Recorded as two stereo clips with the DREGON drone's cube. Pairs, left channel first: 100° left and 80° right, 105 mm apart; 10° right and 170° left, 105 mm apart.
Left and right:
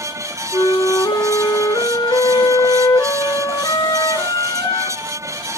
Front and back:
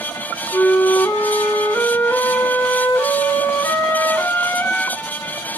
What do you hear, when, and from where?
0.5 s a flute: 50° left, 1.0 m